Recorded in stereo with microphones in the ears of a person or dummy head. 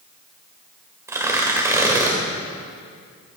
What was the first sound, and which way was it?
Tearing paper, 15° right (ahead or behind).